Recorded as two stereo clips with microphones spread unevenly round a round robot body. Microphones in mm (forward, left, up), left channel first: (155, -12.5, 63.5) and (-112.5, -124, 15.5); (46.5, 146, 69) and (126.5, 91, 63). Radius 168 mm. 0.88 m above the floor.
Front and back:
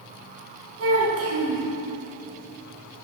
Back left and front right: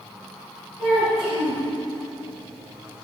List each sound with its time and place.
0.8 s a child speaking: 115° right, 5.5 m